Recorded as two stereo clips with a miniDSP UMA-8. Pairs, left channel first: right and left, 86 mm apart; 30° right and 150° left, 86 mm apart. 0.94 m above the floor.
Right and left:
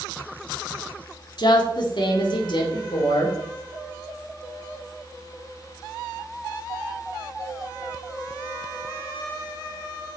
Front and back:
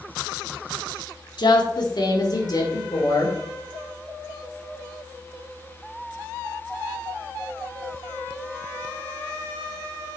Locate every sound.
1.4 s a woman speaking: 60° right, 1.6 m; by 3.4 s 70° right, 3 m